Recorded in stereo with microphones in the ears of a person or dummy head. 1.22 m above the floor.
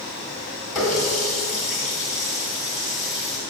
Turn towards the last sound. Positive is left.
turn(degrees=0)  # may be behind; listen again after turning